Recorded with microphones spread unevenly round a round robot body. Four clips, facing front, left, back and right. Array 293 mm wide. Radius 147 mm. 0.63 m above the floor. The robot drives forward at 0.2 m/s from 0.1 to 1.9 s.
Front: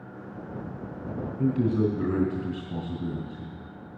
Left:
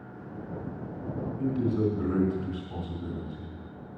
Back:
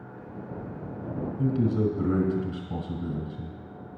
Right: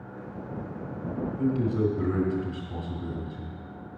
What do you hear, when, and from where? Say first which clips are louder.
1.4 s a man speaking: right 1 dB, front 1 dB; straight behind, 3 m